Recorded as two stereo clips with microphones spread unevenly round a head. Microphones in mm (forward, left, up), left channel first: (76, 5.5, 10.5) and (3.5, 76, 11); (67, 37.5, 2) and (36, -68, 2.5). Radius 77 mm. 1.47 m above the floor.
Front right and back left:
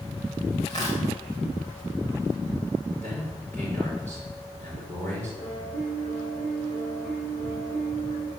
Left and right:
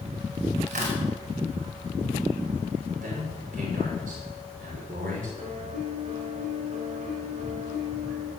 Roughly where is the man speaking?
Behind right.